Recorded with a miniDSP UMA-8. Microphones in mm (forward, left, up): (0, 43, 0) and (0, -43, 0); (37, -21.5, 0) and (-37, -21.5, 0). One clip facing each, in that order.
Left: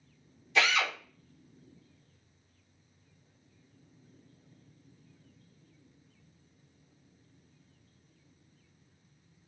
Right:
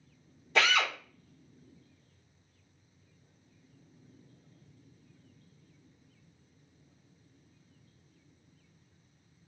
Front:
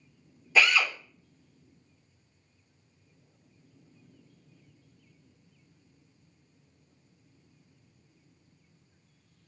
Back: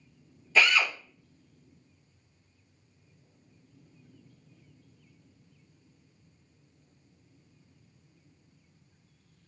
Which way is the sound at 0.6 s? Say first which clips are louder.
Right 1 dB, even; 75° right.